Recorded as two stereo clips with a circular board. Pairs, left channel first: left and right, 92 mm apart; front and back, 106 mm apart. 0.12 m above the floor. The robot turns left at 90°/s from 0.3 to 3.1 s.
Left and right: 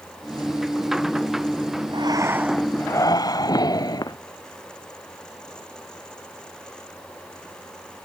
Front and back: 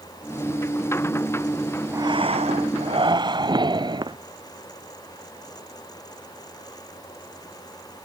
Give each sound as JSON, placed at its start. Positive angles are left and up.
{"t": 1.9, "sound": "breathing", "azimuth_deg": -120}